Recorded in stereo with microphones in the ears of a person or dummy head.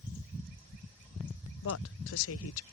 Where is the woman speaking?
65° left (ahead or behind).